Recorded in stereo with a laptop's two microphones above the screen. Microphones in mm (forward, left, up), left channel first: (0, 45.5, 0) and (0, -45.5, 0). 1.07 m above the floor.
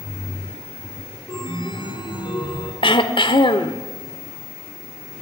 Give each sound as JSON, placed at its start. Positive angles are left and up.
{"t": 1.3, "sound": "a chime", "side_deg": 65, "distance_m": 4.0}
{"t": 2.8, "sound": "throat clearing", "side_deg": 70, "distance_m": 1.5}